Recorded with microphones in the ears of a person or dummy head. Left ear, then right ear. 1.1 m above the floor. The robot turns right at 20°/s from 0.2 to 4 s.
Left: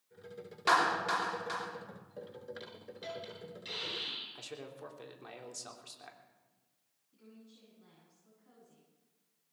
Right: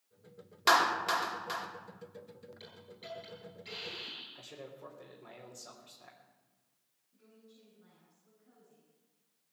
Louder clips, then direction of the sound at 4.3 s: Left 2 dB; 75° left (ahead or behind).